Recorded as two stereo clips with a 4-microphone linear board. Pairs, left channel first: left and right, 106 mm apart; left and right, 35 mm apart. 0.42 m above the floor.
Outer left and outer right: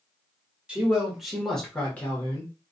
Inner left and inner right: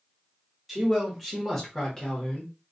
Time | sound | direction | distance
0.7 | a man speaking | 10° right (ahead or behind) | 1.2 m